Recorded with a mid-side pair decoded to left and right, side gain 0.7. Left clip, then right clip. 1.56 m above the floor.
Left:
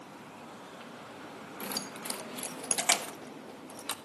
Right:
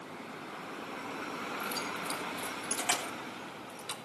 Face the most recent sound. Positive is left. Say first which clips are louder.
# left 1 dB
turn(degrees=30)